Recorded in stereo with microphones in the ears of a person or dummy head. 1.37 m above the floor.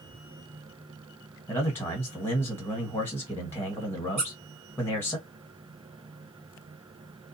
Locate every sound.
1.5 s a man speaking: 10° left (ahead or behind), 1.4 m
4.2 s a squeak: 30° right (ahead or behind), 1.7 m